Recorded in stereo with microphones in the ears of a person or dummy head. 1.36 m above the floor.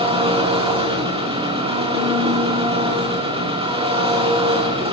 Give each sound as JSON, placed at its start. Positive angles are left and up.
{"t": 0.0, "sound": "an engine running", "side_deg": -30, "distance_m": 3.0}